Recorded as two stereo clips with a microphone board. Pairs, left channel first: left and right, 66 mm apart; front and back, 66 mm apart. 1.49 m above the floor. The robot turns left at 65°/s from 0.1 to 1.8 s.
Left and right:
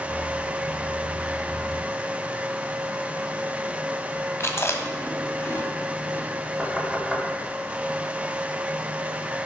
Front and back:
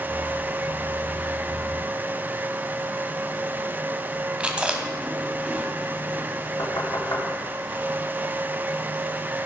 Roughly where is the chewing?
Behind left.